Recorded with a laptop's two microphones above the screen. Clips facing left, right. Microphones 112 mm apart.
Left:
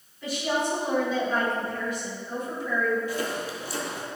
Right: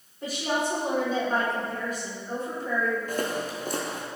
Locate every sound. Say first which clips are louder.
0.2 s a woman speaking: left 1 dB; 45° right (ahead or behind), 3 m
3.1 s footsteps: right 1 dB; 50° right (ahead or behind), 1.5 m